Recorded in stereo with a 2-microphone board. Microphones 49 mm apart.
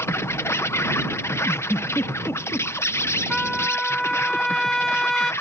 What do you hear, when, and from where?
0.0 s an insect: 65° left (ahead or behind)
1.4 s a giggle: 60° left (ahead or behind)
3.3 s a trumpet: 10° left (ahead or behind)